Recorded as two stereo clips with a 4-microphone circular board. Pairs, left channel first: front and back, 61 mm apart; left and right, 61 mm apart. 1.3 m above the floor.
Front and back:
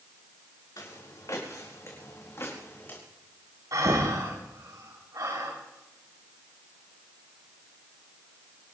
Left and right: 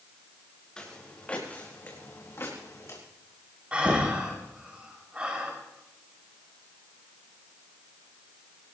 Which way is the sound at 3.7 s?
160° right.